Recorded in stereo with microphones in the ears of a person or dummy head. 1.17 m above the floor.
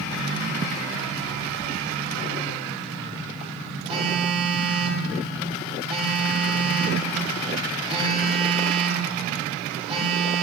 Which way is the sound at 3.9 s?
35° right (ahead or behind).